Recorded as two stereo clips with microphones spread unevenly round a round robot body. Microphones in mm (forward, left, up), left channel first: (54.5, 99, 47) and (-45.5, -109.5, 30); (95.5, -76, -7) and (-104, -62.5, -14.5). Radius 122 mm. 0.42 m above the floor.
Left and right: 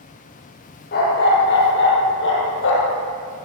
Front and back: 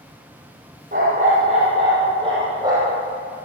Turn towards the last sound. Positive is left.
turn(degrees=100)